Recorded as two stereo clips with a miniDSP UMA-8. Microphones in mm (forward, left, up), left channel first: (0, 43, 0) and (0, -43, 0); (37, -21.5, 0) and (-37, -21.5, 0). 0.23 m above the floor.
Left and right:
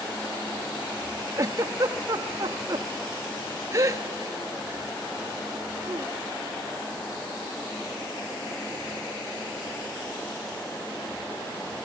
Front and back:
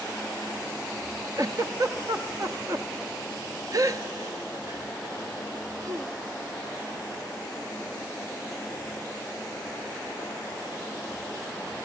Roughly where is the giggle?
Behind right.